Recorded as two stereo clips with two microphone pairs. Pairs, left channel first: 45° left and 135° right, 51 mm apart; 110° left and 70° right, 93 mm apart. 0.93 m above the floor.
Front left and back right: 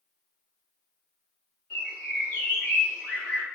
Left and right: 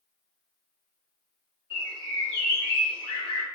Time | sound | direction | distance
1.7 | a bird | 110° left | 1.3 m